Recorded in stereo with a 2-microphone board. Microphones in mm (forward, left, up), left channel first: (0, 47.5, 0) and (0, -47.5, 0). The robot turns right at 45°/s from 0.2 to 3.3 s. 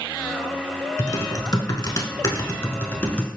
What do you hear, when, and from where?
1.0 s typing on a keyboard: 65° left, 0.5 m; by 3.3 s 165° left, 0.5 m